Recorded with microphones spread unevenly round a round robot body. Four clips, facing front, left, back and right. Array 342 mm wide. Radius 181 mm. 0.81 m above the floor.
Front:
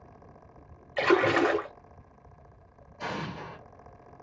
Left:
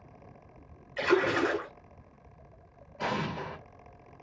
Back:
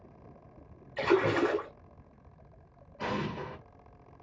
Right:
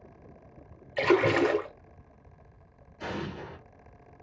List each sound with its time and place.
1.0 s a splash: 40° right, 0.9 m
3.0 s an explosion: 115° left, 1.3 m